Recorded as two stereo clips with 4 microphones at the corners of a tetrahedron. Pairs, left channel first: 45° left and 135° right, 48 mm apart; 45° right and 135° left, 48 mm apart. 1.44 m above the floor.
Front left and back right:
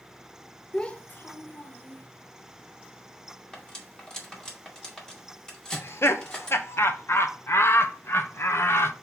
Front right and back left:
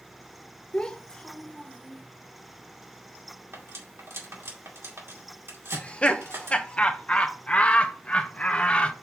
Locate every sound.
0.7 s a child speaking: 10° right, 0.5 m; by 2.0 s 30° left, 1.2 m
3.5 s cutlery clinking: 120° left, 2 m
5.7 s laughter: 15° left, 0.8 m